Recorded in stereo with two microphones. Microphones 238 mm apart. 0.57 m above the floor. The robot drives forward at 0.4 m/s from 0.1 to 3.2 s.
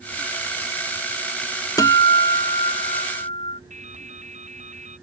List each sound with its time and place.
1.8 s a guitar: 15° left (ahead or behind)
3.7 s dripping: 30° right (ahead or behind)